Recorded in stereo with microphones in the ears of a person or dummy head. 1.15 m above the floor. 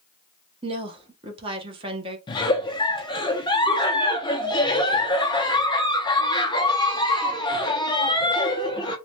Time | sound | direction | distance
0.6 | a woman speaking | 25° right (ahead or behind) | 0.7 m
2.3 | a giggle | 25° left (ahead or behind) | 0.5 m